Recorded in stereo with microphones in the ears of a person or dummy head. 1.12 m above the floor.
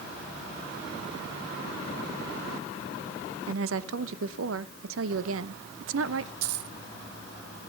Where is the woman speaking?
75° right (ahead or behind), 0.9 m.